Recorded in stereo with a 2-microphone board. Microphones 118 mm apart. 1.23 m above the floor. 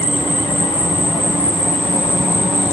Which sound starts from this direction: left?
An insect, at 0.0 s.